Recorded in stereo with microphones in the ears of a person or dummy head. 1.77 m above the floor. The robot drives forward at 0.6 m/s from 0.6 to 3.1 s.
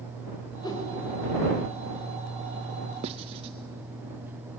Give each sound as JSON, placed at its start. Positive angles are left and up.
{"t": 0.6, "sound": "a whoosh", "side_deg": 20, "distance_m": 2.0}
{"t": 3.0, "sound": "writing", "side_deg": -30, "distance_m": 0.6}